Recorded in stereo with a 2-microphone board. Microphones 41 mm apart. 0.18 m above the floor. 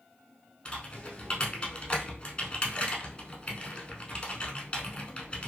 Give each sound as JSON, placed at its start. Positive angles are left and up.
{"t": 0.7, "sound": "typing on a keyboard", "side_deg": 25, "distance_m": 0.8}